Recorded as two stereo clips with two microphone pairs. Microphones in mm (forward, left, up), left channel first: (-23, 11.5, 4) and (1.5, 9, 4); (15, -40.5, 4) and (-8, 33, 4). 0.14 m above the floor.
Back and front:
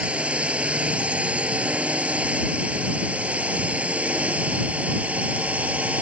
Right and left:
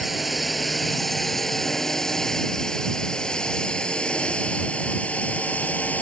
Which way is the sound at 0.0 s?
20° left.